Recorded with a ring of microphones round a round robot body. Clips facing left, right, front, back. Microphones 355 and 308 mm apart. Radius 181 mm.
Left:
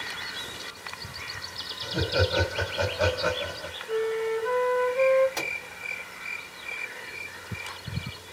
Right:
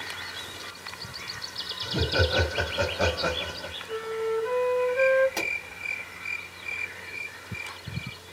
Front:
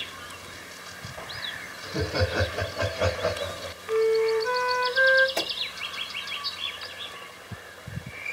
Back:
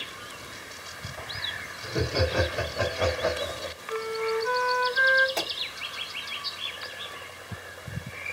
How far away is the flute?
About 0.8 m.